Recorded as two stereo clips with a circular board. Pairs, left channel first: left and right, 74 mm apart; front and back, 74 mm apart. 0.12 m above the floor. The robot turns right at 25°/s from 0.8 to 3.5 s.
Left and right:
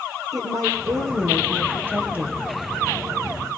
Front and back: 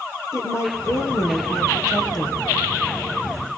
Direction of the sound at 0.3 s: 50° right.